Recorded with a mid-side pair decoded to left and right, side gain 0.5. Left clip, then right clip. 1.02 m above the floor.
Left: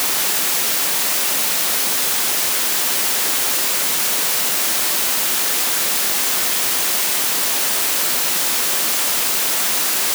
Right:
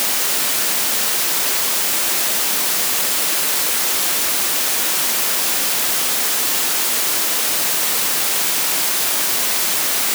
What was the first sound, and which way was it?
Only background noise.